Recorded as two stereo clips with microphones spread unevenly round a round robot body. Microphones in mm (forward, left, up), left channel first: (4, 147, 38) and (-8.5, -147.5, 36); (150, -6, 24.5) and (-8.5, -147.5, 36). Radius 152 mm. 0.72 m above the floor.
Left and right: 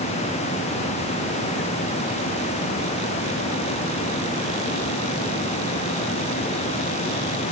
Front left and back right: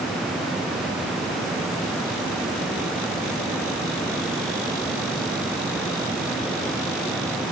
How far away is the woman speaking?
No woman speaking in this recording.